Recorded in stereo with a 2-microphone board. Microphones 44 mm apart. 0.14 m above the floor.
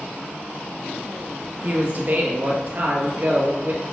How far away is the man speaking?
About 2.5 m.